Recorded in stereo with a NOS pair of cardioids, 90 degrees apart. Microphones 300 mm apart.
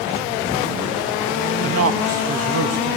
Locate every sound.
1.6 s a man speaking: 50° right, 2.5 m; by 3.0 s 55° right, 1.6 m